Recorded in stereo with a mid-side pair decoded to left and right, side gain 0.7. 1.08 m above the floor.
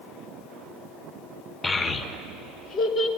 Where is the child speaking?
20° left, 0.8 m; by 3.1 s 55° left, 1.4 m.